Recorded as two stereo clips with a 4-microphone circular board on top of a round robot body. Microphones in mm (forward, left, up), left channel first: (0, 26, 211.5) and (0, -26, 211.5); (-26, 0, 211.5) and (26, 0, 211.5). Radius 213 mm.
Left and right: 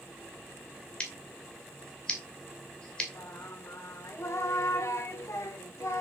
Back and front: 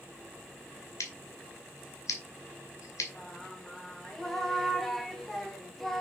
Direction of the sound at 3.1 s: 95° left.